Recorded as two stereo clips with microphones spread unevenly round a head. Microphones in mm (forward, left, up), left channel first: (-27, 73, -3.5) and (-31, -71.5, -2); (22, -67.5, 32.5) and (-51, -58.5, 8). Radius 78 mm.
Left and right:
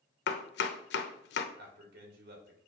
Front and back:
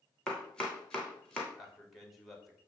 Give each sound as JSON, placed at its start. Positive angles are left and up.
{"t": 0.3, "sound": "chopping", "azimuth_deg": 80, "distance_m": 1.0}
{"t": 1.6, "sound": "a man speaking", "azimuth_deg": -100, "distance_m": 3.0}